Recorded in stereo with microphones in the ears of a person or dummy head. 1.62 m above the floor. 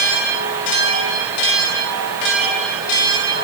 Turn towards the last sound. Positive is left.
No sound to turn to.